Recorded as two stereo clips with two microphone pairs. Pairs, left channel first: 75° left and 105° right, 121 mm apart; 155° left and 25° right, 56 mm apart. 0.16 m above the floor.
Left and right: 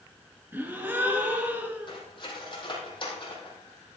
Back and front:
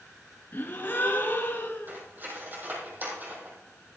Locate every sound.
0.5 s a gasp: 175° right, 1.9 m
1.9 s cutlery clinking: 25° left, 4 m